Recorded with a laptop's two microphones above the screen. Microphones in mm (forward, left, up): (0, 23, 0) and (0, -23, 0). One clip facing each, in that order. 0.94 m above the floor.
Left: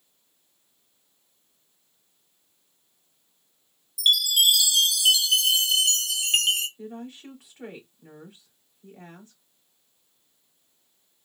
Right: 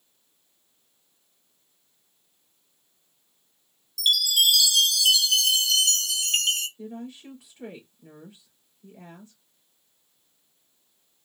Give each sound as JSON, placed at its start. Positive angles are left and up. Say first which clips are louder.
{"t": 4.0, "sound": "a chime", "louder": "left 1 dB", "side_deg": 20, "distance_m": 1.0}
{"t": 6.8, "sound": "a woman speaking", "louder": "even", "side_deg": 40, "distance_m": 3.0}